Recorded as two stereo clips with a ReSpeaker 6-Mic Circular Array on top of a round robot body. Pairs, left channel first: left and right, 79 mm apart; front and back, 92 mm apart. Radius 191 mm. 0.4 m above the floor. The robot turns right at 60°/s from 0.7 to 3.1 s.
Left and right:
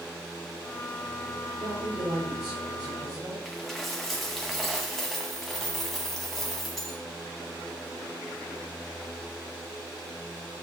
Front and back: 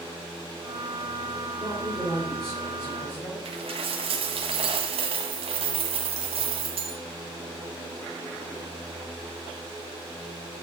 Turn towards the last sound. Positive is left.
turn(degrees=175)